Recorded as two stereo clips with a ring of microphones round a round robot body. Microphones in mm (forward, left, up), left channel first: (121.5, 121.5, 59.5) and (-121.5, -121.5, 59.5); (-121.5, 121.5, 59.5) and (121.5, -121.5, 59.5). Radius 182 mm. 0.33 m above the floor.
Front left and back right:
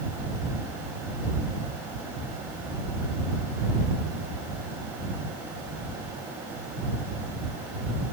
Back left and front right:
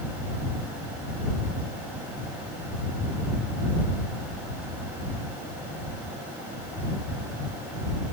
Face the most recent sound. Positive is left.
No sound to turn to.